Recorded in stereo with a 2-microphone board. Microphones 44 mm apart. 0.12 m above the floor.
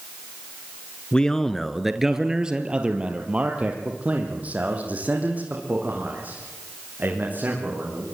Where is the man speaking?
20° left (ahead or behind), 1.4 m; by 8.0 s 40° right (ahead or behind), 9 m.